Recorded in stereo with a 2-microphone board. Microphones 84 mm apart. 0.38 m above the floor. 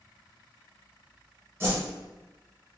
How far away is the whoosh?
About 1.9 m.